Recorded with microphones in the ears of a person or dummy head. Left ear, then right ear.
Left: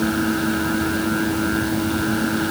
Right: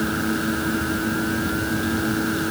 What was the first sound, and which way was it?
Only background noise.